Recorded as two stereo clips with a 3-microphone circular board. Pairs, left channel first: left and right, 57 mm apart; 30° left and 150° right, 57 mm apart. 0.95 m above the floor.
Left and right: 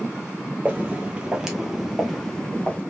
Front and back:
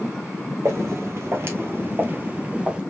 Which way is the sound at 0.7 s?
145° right.